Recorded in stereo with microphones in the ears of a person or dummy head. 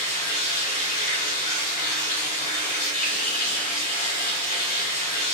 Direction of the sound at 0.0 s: 35° left (ahead or behind).